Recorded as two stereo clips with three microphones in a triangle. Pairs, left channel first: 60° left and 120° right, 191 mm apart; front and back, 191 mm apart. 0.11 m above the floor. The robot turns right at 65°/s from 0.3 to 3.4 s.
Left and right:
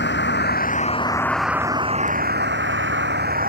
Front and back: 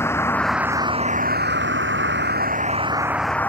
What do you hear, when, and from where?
0.0 s a vehicle: 75° left; by 3.5 s 80° right